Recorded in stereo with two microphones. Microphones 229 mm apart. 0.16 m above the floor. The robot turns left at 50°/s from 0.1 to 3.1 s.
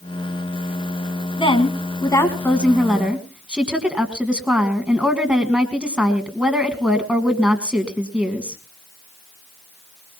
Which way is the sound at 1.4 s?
25° left (ahead or behind).